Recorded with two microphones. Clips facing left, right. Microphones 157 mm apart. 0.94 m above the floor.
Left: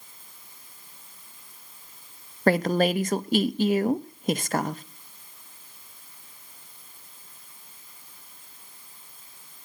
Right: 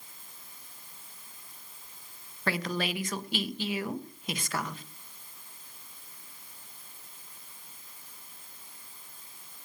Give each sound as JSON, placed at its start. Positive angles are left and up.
{"t": 2.5, "sound": "a woman speaking", "side_deg": 50, "distance_m": 0.6}